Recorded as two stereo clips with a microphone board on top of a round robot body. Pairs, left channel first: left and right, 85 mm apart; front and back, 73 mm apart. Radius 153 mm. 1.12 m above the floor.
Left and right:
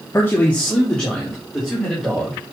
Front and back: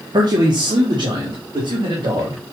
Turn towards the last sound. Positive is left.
turn(degrees=-175)